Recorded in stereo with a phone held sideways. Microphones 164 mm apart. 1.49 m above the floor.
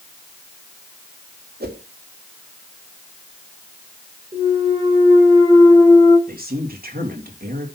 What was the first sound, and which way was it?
A whoosh, 70° right (ahead or behind).